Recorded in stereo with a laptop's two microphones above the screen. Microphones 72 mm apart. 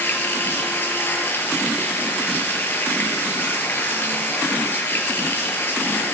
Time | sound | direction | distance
0.0 | running water | 30° left (ahead or behind) | 6 m